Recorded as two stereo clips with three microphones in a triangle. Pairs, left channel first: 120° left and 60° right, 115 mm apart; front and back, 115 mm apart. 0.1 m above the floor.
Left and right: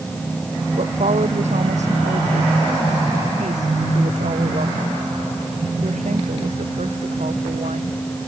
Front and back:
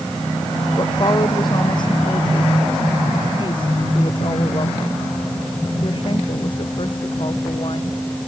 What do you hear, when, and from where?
0.8 s a woman speaking: 50° right; by 8.0 s 45° right